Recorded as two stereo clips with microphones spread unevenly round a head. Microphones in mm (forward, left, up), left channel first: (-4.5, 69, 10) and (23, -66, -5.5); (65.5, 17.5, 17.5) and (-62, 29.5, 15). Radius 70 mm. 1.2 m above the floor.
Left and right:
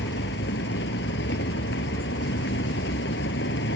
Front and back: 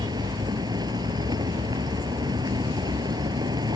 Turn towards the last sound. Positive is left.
turn(degrees=115)